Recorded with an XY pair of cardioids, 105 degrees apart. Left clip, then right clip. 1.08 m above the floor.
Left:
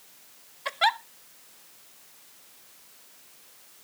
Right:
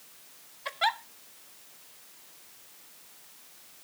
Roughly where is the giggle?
Ahead left.